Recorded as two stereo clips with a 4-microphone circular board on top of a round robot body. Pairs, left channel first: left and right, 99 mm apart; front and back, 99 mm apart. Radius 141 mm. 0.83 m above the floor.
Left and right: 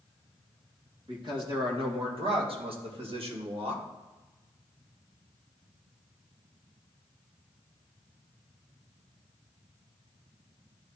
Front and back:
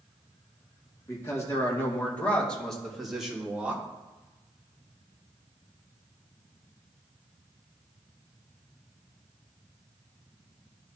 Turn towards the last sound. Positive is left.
turn(degrees=-105)